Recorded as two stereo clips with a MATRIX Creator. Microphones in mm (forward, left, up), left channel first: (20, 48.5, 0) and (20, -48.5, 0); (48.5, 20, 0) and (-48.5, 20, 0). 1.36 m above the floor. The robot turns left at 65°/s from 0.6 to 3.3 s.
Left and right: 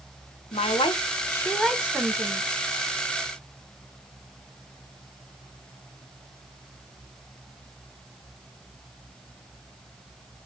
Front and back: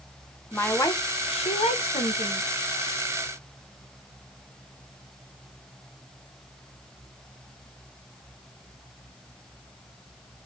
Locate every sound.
0.5 s a woman speaking: 70° left, 0.8 m; by 2.4 s 45° right, 0.8 m